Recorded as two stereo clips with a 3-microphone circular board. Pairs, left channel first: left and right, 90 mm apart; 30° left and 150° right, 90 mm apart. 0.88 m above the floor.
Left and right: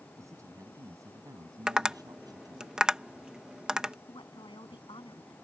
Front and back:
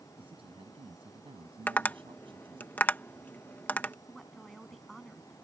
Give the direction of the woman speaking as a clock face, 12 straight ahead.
8 o'clock.